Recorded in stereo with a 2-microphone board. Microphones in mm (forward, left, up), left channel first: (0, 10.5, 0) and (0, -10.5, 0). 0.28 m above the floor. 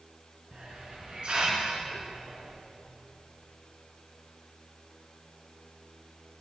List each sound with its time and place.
0.5 s a hiss: 45° right (ahead or behind), 2 m